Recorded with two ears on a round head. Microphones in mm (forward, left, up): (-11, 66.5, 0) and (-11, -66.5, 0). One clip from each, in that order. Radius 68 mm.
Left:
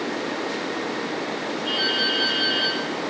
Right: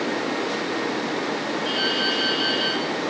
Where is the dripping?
30° right (ahead or behind), 8 m.